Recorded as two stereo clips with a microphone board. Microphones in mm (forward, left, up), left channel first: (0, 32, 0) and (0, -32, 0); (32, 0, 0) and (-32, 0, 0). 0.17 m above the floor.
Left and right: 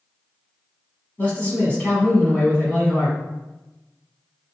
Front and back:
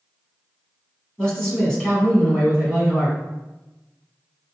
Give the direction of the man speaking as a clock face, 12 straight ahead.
10 o'clock.